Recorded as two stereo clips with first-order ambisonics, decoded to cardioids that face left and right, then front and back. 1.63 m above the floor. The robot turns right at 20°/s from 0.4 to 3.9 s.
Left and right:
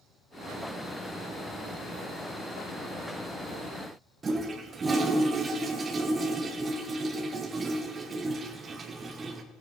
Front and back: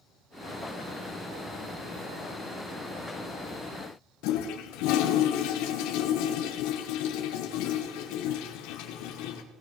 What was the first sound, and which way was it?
A toilet flushing, 20° right.